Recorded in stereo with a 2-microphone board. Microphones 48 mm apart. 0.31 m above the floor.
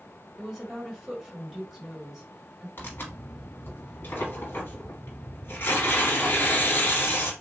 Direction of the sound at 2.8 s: 50° left (ahead or behind).